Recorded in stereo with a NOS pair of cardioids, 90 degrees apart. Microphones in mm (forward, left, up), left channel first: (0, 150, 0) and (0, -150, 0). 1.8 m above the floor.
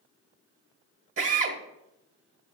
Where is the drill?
45° right, 2 m.